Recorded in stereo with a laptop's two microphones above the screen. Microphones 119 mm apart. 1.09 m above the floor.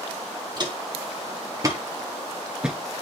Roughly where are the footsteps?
Right.